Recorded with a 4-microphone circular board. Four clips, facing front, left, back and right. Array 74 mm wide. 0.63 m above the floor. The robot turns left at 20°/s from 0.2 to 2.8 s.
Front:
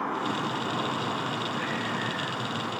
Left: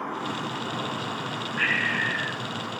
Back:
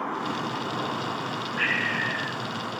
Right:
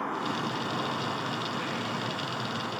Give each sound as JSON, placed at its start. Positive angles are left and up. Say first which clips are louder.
{"t": 1.6, "sound": "breathing", "louder": "left 6 dB, back 3 dB", "azimuth_deg": 125}